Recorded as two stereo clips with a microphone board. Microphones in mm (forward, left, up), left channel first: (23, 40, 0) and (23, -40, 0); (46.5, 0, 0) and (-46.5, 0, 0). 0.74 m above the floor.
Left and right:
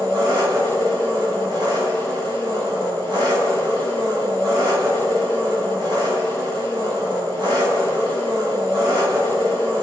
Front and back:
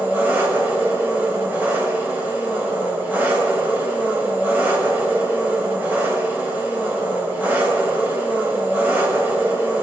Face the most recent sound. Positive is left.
turn(degrees=-110)